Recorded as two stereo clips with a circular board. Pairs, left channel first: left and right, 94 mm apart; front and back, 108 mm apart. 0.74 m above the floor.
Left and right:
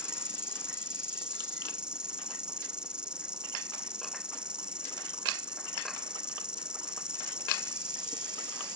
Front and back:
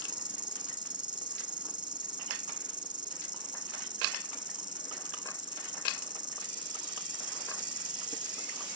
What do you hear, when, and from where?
0.0 s an insect: 165° right